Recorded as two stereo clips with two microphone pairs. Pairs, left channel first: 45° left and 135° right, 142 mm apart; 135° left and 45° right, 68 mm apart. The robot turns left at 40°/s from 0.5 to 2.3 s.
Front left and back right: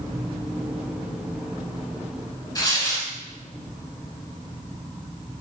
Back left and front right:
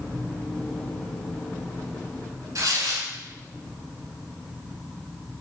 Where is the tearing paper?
15° right, 0.8 m.